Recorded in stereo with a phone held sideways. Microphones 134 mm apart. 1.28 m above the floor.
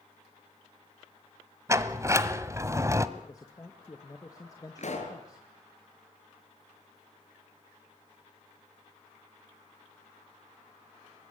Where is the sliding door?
20° right (ahead or behind), 1.2 m.